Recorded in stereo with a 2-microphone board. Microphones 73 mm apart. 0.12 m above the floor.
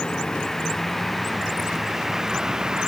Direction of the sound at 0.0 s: 10° left (ahead or behind).